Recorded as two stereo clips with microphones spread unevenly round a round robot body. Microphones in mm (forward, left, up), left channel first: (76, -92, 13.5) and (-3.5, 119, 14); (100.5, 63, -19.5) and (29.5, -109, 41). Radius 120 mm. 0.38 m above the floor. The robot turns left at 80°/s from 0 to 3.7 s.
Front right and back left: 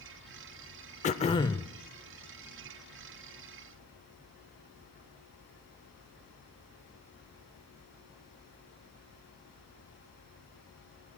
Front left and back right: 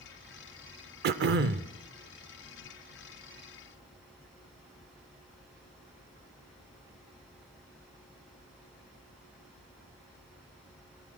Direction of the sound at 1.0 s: 95° right.